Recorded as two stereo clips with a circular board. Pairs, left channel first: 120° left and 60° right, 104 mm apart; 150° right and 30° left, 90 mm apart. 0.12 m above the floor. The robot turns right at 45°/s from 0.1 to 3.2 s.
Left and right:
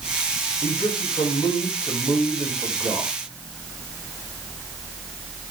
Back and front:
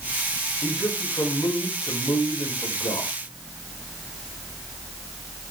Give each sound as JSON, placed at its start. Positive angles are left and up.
{"t": 0.6, "sound": "a man speaking", "azimuth_deg": 110, "distance_m": 6.0}